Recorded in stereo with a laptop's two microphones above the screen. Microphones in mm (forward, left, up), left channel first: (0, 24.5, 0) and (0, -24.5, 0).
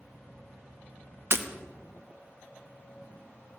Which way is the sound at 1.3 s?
55° right (ahead or behind).